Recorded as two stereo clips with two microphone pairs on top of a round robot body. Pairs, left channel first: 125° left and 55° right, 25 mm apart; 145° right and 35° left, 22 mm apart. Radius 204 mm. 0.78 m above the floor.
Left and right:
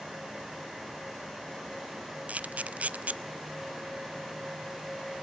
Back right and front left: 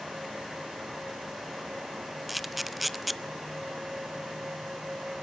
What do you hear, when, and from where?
2.3 s a camera shutter: 60° right, 0.6 m